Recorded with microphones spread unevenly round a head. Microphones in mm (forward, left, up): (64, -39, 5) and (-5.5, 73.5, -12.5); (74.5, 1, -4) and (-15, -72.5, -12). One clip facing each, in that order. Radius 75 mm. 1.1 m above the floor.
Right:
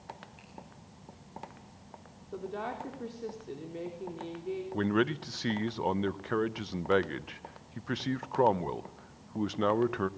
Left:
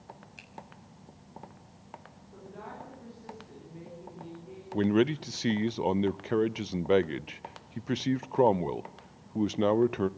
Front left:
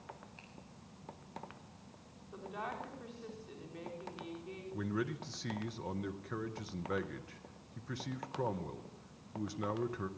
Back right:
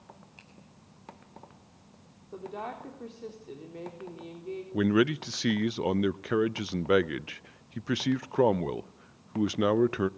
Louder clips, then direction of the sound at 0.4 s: Right 1 dB, even; 140° left.